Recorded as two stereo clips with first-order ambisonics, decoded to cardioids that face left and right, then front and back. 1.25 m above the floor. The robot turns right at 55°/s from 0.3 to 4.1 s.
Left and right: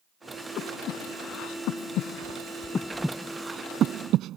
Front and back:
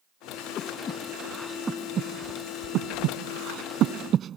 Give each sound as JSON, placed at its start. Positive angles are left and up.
{"t": 0.6, "sound": "breathing", "azimuth_deg": 40}